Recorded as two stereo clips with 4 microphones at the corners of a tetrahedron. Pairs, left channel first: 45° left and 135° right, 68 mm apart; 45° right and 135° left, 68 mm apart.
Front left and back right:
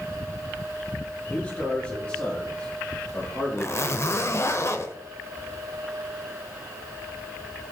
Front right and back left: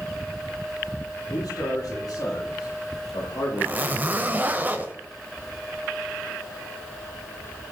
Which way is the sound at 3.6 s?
80° left.